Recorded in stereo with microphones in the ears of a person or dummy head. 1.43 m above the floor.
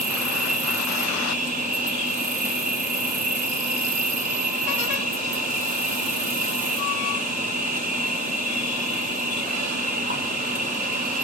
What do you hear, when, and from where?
0.0 s an insect: 25° right (ahead or behind), 1.0 m